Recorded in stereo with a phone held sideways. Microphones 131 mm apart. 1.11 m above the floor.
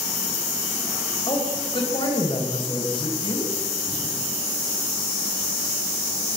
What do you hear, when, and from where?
1.3 s a woman speaking: 40° left (ahead or behind), 5 m